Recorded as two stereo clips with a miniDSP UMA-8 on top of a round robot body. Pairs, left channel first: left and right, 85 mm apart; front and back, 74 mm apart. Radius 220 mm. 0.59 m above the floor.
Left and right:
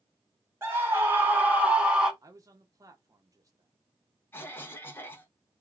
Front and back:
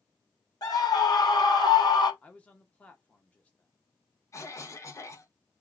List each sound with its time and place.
0.6 s a scream: 30° right, 2 m; by 2.1 s 10° right, 1.8 m
2.2 s a man speaking: 65° right, 1.1 m
4.3 s a cough: 30° left, 1.5 m